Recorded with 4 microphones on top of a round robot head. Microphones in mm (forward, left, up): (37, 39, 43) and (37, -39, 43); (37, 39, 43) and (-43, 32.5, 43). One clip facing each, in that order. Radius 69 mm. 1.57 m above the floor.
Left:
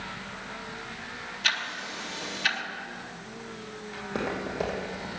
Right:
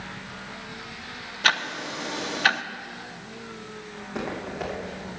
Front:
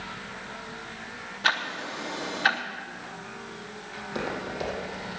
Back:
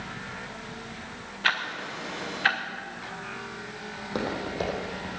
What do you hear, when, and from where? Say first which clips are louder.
1.4 s ticking: right 7 dB, front 1 dB; 65° right, 0.6 m
4.0 s footsteps: left 1 dB, back 1 dB; 145° left, 3.5 m; by 5.1 s 135° left, 3.5 m